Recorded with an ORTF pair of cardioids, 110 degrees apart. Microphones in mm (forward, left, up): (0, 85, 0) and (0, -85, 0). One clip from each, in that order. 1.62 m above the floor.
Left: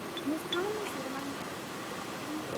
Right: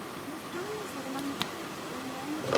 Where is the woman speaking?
50° left, 0.7 m; by 2.5 s 35° right, 1.6 m.